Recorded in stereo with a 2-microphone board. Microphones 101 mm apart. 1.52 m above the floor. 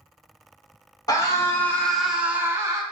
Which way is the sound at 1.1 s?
40° left (ahead or behind).